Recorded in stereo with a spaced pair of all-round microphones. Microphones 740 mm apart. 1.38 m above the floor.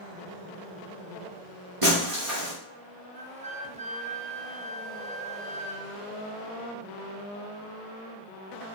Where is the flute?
10° right (ahead or behind), 0.8 m.